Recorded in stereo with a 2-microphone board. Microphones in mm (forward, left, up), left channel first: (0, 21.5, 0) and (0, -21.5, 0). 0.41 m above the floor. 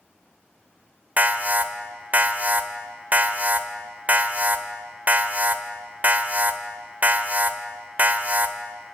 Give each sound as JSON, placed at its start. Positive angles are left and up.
{"t": 1.2, "sound": "an alarm", "side_deg": -40, "distance_m": 1.0}